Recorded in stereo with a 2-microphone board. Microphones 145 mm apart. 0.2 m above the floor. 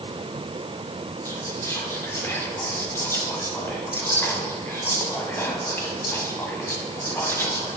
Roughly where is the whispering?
Centre.